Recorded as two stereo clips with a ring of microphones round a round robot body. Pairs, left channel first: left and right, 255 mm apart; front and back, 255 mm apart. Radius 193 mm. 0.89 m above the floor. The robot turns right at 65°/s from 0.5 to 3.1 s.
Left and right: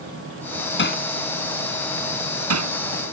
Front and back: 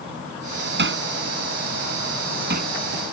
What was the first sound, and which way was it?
Hammering, 135° left.